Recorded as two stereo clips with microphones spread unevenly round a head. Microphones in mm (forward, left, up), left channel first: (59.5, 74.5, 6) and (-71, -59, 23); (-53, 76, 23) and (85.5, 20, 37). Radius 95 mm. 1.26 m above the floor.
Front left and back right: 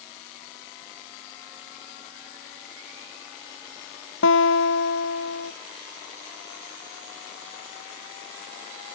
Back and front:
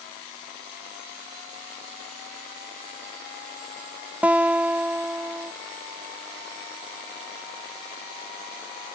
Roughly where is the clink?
I don't hear a clink.